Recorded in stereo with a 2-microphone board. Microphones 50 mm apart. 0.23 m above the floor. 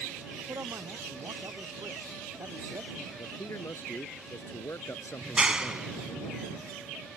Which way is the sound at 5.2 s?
15° right (ahead or behind).